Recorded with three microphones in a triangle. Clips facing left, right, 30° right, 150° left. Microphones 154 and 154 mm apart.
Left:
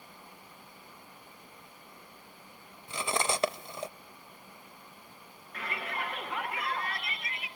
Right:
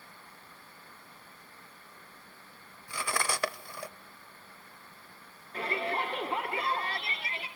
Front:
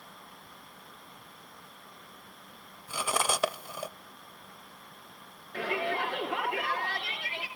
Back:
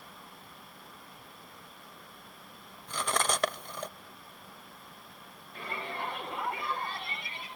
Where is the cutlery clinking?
45° left, 0.6 m.